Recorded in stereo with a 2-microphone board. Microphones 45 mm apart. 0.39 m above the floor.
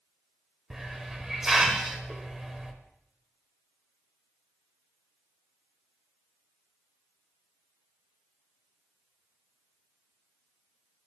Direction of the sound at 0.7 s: 10° right (ahead or behind).